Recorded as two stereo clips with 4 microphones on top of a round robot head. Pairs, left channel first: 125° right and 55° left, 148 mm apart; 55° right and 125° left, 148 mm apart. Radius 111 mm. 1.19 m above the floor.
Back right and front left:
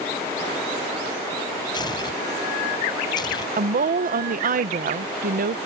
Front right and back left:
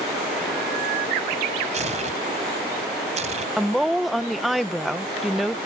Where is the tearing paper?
170° left.